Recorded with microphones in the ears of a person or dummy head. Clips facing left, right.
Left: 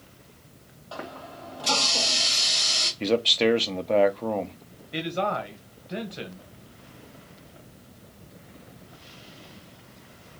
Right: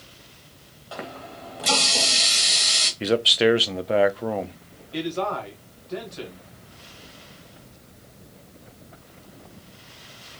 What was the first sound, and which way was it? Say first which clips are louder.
A running tap: right 2 dB; 25° right (ahead or behind).